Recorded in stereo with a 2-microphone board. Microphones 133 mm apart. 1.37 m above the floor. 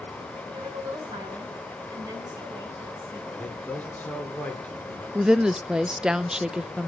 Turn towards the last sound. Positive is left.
turn(degrees=-5)  # may be behind; listen again after turning